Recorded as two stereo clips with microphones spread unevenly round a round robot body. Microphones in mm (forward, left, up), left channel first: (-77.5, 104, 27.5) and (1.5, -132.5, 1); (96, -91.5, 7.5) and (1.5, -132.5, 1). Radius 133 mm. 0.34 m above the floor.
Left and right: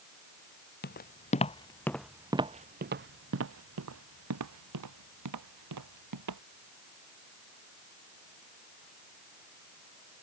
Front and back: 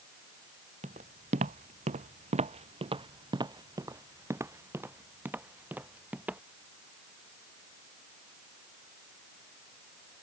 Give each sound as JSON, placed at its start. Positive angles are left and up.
{"t": 0.8, "sound": "footsteps", "azimuth_deg": 160}